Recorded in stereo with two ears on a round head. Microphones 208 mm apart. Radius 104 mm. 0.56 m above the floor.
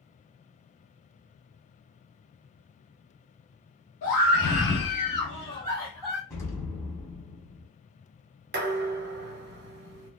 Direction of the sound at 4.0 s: 65° left (ahead or behind).